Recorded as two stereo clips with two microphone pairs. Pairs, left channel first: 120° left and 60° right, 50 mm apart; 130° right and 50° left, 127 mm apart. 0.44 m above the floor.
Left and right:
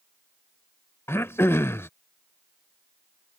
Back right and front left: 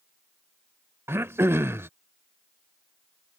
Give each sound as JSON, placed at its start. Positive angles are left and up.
{"t": 1.1, "sound": "throat clearing", "azimuth_deg": 115}